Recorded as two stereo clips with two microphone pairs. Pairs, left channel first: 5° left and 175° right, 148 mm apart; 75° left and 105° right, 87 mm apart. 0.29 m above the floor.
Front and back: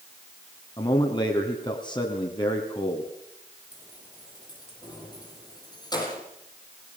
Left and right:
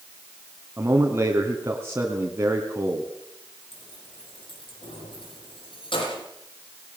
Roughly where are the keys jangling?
Left.